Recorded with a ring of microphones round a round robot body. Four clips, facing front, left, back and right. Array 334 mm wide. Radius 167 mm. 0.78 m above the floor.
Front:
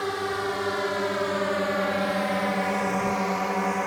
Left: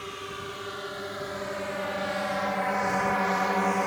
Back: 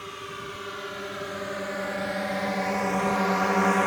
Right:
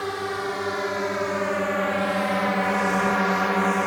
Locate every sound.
0.0 s a drone: 45° right; by 3.9 s 140° right